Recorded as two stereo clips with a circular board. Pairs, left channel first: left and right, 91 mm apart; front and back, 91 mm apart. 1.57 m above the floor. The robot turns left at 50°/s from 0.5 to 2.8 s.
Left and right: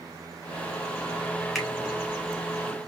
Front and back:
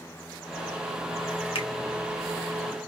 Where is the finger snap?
Straight ahead, 1.3 m; by 1.7 s 5° right, 1.3 m.